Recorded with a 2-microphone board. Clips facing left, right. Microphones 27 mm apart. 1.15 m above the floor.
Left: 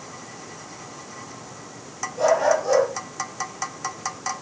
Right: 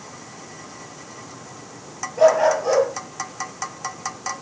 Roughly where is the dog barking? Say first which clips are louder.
Right 4 dB; right.